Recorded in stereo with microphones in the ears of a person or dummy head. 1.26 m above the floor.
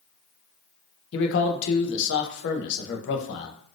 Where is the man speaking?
70° left (ahead or behind), 0.7 m.